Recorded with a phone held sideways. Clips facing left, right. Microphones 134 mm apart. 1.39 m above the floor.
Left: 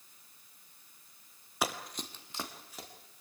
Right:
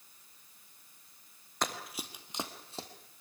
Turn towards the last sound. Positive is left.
turn(degrees=-30)  # may be behind; listen again after turning